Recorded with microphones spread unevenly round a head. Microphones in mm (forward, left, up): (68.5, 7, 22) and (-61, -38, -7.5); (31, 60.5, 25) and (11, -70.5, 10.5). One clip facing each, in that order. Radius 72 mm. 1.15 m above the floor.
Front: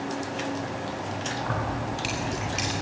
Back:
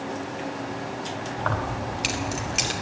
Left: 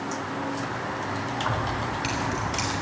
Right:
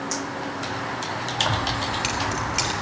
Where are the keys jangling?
150° right, 2 m; by 2.7 s 130° right, 2.5 m.